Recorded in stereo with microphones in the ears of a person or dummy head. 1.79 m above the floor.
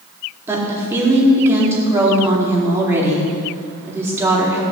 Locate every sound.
0.5 s a woman speaking: 10° right (ahead or behind), 4 m